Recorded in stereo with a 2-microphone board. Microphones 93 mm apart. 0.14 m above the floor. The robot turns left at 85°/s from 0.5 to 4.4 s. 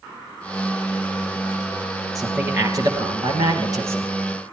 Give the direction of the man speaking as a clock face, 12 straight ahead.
12 o'clock.